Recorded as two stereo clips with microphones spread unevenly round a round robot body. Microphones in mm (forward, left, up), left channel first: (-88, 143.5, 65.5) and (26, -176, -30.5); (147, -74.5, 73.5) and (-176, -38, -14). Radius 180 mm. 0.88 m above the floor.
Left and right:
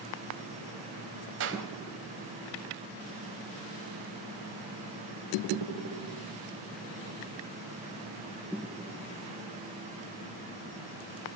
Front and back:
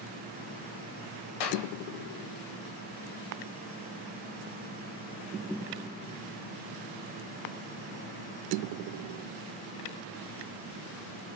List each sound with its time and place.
1.4 s a clap: 10° right, 3.5 m